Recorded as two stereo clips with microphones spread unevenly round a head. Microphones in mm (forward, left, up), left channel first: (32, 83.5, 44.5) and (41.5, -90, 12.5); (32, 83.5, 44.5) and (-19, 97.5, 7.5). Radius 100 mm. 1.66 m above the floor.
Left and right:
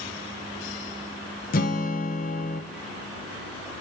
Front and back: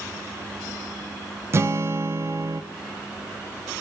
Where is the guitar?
100° left, 0.7 m.